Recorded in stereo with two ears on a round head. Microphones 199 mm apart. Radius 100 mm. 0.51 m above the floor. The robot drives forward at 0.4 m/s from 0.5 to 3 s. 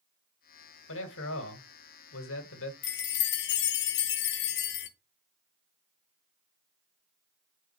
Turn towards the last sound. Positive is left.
turn(degrees=50)  # may be behind; listen again after turning